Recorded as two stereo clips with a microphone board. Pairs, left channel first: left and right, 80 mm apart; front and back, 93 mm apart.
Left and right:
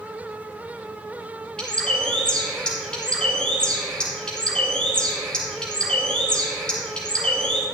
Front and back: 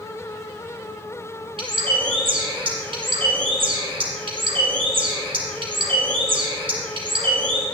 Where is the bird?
170° left, 2 m.